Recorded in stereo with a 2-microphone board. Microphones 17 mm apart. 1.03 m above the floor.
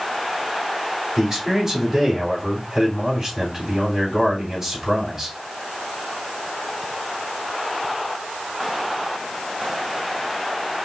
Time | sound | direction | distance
1.2 | a man speaking | 35° right (ahead or behind) | 3.5 m